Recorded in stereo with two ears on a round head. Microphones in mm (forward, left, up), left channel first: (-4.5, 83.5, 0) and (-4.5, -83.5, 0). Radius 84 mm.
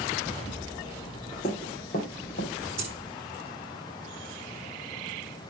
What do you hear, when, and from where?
1.4 s running footsteps: 35° left (ahead or behind), 3.5 m; by 2.5 s 50° left (ahead or behind), 4 m
2.8 s a dropped coin: 35° right (ahead or behind), 7.5 m